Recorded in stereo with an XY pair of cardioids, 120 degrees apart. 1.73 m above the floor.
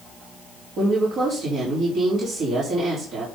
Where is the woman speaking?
65° right, 4 m.